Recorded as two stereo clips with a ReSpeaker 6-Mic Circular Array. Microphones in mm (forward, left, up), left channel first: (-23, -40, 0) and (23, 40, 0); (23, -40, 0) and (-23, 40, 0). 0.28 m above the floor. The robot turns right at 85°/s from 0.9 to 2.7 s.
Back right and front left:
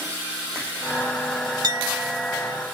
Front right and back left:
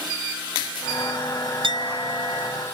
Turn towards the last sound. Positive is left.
turn(degrees=-170)